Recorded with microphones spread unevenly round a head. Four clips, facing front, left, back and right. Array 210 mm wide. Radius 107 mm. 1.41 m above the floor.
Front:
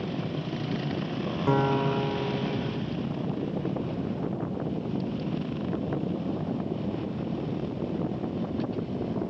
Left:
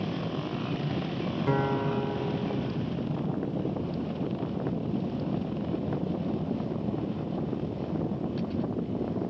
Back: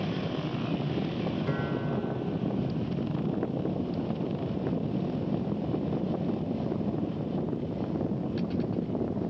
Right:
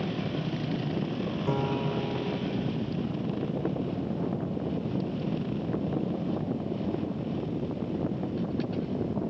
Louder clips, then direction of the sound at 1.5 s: Left 3 dB, front 6 dB; 10° left.